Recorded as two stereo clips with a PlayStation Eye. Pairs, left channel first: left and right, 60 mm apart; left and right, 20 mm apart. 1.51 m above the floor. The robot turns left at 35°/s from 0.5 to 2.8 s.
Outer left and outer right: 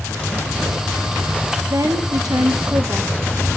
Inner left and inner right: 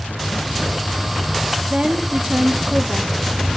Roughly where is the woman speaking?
Right.